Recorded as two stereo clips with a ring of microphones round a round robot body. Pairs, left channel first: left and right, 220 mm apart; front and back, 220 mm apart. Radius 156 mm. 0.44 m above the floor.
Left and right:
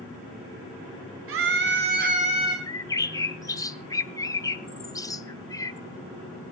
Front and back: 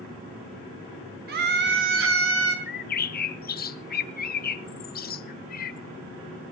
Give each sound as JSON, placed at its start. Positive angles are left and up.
{"t": 1.3, "sound": "a scream", "azimuth_deg": -125, "distance_m": 2.5}
{"t": 2.7, "sound": "a bird", "azimuth_deg": 20, "distance_m": 0.8}